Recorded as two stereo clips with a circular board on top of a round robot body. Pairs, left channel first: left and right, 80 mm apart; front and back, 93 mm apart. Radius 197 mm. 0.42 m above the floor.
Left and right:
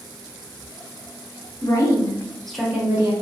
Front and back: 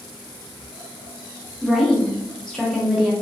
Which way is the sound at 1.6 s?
90° left.